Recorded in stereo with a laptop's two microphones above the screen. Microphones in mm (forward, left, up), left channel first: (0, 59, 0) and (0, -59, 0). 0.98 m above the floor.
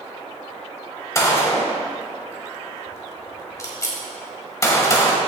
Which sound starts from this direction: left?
A gunshot, at 1.1 s.